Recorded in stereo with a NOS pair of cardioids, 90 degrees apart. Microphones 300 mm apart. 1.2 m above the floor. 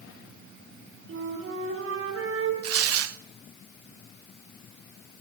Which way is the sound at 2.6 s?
55° right.